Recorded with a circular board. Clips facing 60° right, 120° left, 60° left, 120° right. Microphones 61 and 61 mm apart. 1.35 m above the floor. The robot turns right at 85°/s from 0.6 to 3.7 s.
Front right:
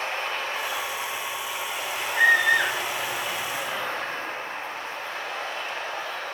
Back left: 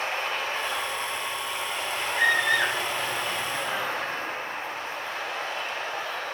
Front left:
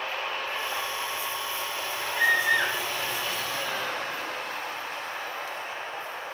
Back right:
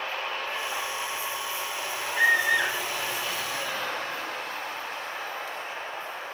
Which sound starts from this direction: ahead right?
A scream, at 2.1 s.